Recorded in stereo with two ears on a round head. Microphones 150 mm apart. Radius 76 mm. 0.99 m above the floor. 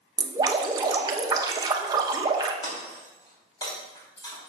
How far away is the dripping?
About 0.9 m.